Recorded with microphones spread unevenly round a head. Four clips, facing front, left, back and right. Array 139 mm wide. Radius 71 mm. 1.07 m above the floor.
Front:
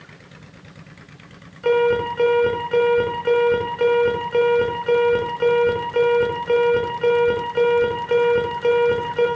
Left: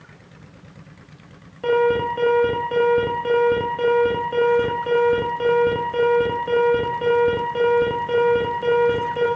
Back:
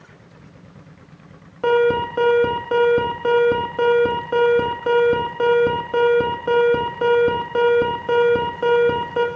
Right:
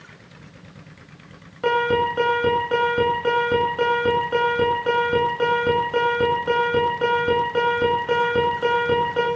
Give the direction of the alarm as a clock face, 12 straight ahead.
6 o'clock.